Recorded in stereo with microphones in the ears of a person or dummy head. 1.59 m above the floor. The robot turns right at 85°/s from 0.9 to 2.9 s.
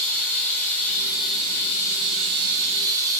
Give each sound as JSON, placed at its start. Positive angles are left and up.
{"t": 0.0, "sound": "running water", "azimuth_deg": 175, "distance_m": 3.0}